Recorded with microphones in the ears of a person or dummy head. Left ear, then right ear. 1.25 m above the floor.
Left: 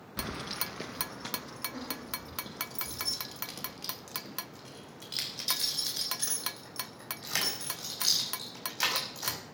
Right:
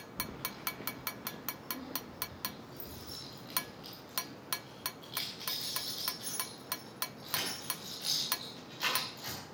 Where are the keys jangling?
65° left (ahead or behind), 0.5 m; by 9.4 s 60° left (ahead or behind), 6 m.